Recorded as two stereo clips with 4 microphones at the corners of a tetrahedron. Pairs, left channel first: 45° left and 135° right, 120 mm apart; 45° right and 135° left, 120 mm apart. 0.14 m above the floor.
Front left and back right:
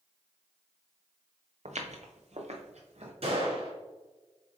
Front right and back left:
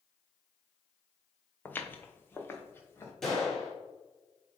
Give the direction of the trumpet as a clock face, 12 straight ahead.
No trumpet in this recording.